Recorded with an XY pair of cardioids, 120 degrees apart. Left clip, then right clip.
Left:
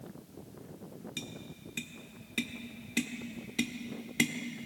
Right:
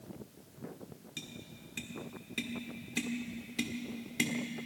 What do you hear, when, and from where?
1.2 s tapping: 20° left, 1.6 m